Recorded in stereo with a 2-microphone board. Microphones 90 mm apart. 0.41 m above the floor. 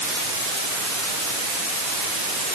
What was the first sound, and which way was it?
Only background noise.